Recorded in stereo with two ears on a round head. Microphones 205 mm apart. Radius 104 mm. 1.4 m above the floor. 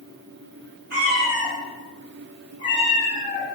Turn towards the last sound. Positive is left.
turn(degrees=40)  # may be behind; listen again after turning